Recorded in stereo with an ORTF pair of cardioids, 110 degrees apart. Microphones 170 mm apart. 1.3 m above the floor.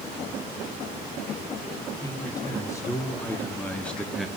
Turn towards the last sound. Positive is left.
turn(degrees=0)